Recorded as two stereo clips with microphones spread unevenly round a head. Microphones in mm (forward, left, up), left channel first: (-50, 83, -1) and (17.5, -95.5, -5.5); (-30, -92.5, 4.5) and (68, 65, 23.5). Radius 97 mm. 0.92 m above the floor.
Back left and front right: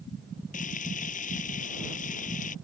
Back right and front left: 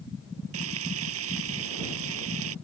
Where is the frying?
55° left.